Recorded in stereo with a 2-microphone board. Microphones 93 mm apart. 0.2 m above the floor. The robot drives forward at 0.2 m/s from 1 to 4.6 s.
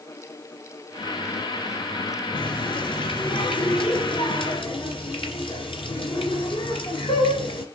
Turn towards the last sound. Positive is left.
turn(degrees=65)  # may be behind; listen again after turning